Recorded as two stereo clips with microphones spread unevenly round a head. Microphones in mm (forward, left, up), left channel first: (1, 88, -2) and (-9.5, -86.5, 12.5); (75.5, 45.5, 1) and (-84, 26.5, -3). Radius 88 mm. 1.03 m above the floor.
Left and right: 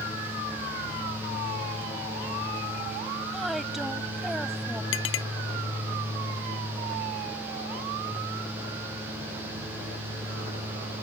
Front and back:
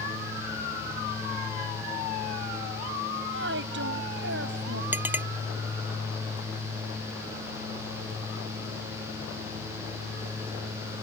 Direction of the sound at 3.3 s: Straight behind.